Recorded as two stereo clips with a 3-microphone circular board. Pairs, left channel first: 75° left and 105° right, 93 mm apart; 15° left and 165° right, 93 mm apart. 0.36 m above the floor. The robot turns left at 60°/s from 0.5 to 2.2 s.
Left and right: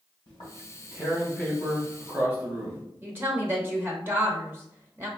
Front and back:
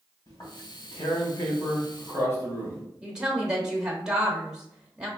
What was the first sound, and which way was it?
Tearing paper, 60° left.